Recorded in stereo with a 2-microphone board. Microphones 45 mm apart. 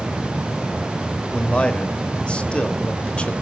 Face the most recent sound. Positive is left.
turn(degrees=25)  # may be behind; listen again after turning